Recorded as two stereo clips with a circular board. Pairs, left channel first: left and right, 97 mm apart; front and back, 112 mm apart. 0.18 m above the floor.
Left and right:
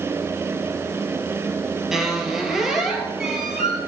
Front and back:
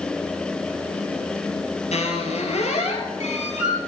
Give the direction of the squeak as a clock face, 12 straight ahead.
12 o'clock.